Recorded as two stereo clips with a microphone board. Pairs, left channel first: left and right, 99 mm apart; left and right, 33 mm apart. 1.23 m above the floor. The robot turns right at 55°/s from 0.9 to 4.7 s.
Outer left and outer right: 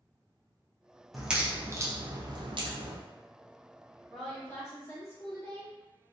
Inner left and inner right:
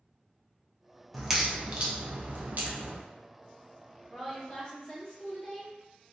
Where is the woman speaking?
5° right, 1.4 m; by 5.7 s 30° left, 1.4 m.